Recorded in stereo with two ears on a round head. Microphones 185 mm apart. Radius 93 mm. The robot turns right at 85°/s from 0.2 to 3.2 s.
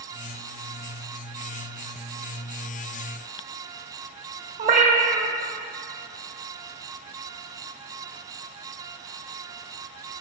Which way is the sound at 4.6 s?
35° right (ahead or behind).